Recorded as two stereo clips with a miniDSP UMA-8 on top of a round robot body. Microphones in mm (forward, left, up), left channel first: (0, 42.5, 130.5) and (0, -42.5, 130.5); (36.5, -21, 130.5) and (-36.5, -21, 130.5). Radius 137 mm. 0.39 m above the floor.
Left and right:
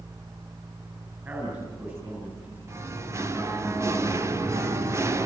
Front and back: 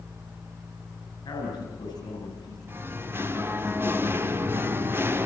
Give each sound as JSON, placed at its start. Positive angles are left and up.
{"t": 1.2, "sound": "a man speaking", "azimuth_deg": -25, "distance_m": 8.0}
{"t": 2.7, "sound": "singing", "azimuth_deg": -130, "distance_m": 1.9}